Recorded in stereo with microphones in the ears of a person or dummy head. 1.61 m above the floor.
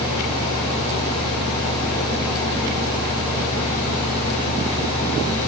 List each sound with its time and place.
Only background noise.